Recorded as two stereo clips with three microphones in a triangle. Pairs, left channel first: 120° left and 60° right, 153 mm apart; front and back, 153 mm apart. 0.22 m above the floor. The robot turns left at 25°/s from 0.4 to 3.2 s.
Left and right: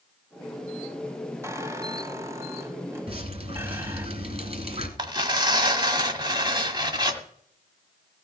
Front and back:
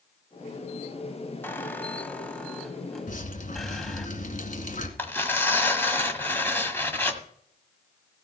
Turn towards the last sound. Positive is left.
turn(degrees=-60)